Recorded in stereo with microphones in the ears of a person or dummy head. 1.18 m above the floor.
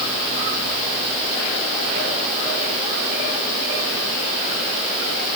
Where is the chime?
No chime in this recording.